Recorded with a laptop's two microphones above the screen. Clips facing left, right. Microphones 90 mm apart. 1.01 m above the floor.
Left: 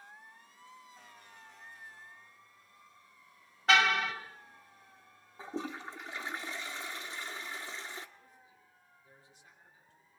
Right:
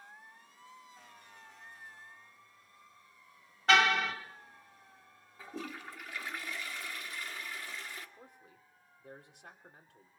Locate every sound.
3.7 s a car horn: centre (ahead or behind), 2.5 m
5.4 s a toilet flushing: 30° left (ahead or behind), 1.5 m
8.2 s a man speaking: 80° right, 3 m